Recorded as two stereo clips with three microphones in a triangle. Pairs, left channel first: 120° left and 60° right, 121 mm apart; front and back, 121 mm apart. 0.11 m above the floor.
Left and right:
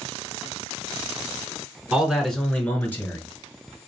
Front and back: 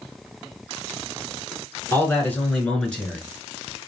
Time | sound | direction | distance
1.9 | a man speaking | 5° left | 1.2 m